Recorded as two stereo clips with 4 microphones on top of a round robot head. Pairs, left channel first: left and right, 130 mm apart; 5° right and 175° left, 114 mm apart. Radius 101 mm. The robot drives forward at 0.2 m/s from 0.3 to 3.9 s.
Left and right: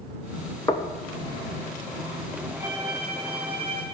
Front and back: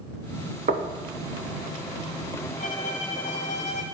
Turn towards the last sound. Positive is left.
turn(degrees=-30)